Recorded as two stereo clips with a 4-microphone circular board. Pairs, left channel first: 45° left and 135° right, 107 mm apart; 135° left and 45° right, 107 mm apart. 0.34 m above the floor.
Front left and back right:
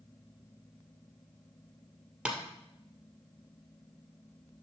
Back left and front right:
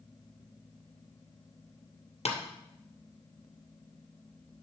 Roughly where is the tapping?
Behind left.